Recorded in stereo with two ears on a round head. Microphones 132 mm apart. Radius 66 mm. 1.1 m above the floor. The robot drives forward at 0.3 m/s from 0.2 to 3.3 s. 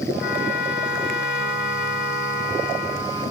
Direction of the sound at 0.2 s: 80° left.